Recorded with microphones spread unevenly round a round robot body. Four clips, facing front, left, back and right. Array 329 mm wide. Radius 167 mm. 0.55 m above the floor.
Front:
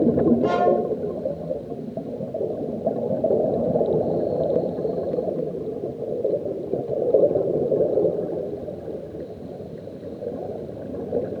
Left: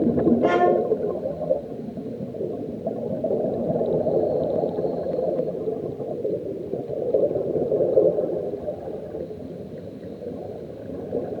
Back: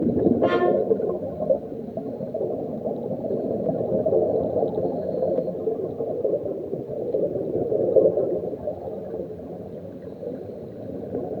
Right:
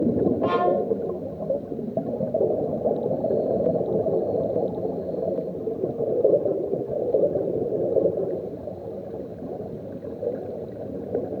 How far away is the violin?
About 1.7 m.